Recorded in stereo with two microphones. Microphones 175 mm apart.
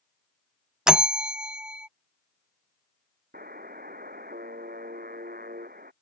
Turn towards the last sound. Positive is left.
turn(degrees=-60)  # may be behind; listen again after turning